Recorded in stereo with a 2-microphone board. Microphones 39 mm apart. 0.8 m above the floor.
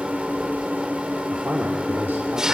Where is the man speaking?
70° right (ahead or behind), 2.5 m.